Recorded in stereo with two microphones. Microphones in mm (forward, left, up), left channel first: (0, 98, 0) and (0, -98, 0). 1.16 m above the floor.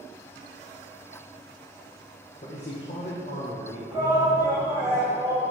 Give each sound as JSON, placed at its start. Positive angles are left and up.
{"t": 2.4, "sound": "a man speaking", "side_deg": 45, "distance_m": 1.0}
{"t": 3.9, "sound": "a shout", "side_deg": -20, "distance_m": 2.5}